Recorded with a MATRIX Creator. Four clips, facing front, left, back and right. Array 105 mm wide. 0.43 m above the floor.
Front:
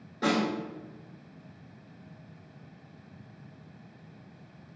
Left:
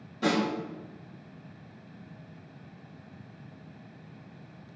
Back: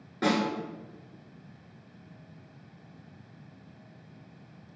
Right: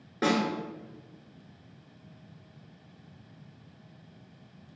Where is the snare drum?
110° right, 1.7 m.